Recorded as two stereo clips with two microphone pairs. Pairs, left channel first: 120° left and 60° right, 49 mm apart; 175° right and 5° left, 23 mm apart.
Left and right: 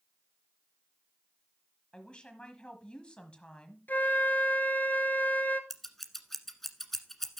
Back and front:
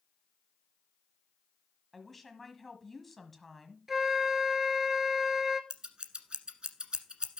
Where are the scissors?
40° left, 1.4 m.